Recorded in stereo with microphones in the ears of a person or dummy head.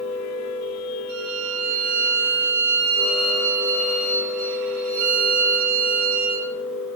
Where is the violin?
45° right (ahead or behind), 2 m.